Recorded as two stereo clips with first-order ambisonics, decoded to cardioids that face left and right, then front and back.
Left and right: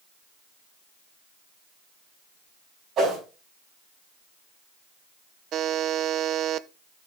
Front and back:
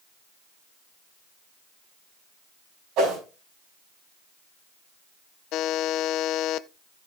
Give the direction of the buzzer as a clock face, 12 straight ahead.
1 o'clock.